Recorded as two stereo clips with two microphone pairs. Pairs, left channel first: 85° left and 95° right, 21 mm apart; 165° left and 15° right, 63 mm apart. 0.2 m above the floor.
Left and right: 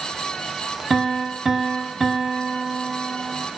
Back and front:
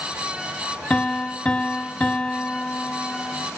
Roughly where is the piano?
Behind right.